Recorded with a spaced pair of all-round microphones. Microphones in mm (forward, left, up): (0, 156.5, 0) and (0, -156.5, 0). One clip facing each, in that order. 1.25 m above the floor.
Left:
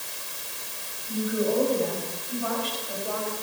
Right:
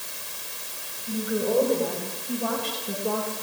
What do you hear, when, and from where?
1.1 s a woman speaking: 70° right (ahead or behind), 7 m; by 3.3 s 75° right (ahead or behind), 5.5 m